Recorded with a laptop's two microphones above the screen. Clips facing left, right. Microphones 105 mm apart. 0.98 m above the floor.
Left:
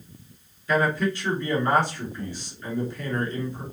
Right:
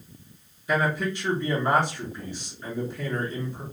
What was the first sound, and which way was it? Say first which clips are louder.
A man speaking: left 2 dB; 20° right (ahead or behind).